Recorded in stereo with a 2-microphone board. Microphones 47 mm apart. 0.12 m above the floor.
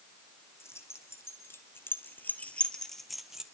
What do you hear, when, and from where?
0.6 s keys jangling: 75° left (ahead or behind), 3.5 m; by 3.5 s 10° right (ahead or behind), 2 m